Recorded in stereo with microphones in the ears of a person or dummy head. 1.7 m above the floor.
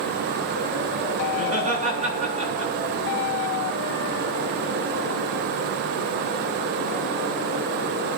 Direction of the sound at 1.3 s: 45° right (ahead or behind).